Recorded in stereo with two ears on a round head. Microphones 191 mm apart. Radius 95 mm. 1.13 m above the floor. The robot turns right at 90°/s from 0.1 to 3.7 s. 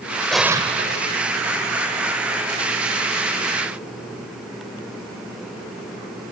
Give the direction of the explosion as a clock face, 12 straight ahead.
6 o'clock.